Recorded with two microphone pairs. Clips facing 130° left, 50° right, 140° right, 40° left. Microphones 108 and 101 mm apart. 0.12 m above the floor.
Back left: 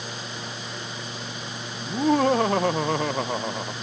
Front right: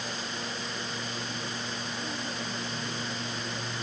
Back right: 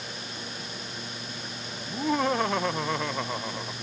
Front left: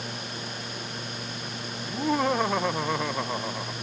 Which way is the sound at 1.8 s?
130° left.